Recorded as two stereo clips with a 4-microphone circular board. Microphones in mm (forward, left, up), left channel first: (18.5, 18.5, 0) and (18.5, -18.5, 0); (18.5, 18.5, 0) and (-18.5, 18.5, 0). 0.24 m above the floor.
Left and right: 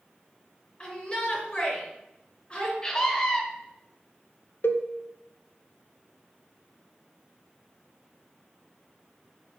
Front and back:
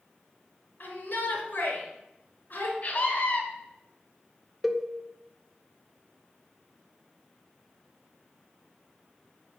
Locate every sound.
0.8 s a shout: 35° left, 2.5 m
2.8 s a scream: 30° left, 1.7 m
4.6 s a cowbell: 90° left, 0.6 m